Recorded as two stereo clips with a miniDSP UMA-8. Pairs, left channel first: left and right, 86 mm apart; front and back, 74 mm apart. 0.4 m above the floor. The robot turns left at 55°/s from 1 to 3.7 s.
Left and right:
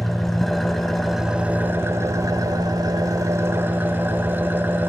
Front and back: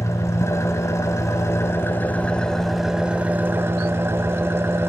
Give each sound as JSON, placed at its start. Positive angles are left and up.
{"t": 0.0, "sound": "an engine running", "azimuth_deg": 5, "distance_m": 0.8}